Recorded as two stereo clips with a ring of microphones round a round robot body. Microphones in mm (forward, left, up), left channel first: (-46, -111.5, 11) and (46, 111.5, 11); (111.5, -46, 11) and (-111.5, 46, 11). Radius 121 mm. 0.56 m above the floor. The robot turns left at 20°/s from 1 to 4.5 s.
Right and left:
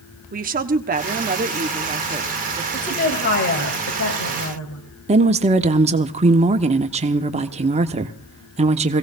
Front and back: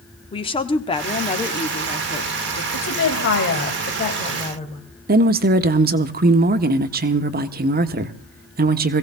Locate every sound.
0.3 s a woman speaking: 35° left, 1.1 m; by 2.6 s 5° left, 1.1 m
2.7 s a woman speaking: 50° right, 2.5 m; by 4.8 s 85° right, 2.5 m
5.1 s a woman speaking: 120° left, 1.0 m